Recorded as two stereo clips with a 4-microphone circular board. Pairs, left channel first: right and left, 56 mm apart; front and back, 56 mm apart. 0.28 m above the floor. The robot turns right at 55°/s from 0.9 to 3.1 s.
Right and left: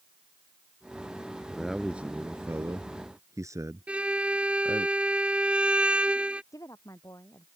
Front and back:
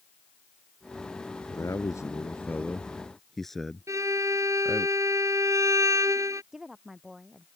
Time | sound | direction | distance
1.5 | a man speaking | straight ahead | ?
3.9 | a violin | 160° left | ?
6.5 | a woman speaking | 95° right | ?